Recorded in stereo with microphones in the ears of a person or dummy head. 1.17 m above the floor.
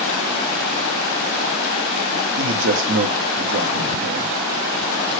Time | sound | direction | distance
2.4 | a man speaking | 60° right (ahead or behind) | 1.9 m